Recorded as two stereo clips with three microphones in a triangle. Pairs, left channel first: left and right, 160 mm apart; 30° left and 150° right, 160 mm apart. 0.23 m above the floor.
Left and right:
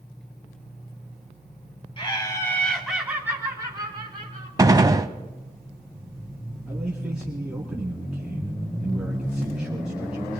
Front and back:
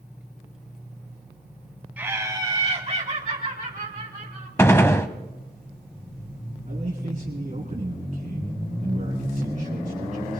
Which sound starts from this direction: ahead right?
A gunshot, at 4.6 s.